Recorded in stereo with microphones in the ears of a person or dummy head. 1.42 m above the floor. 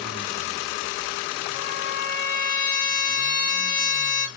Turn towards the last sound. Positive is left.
turn(degrees=40)  # may be behind; listen again after turning